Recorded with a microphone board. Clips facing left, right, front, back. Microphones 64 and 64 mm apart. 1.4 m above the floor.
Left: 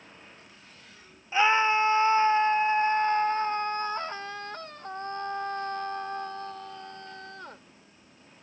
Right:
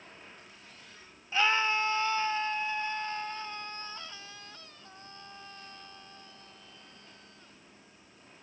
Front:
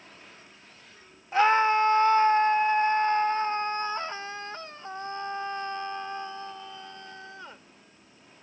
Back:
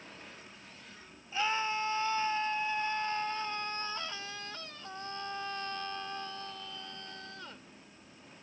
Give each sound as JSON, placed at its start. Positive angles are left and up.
{"t": 1.3, "sound": "a scream", "azimuth_deg": 20}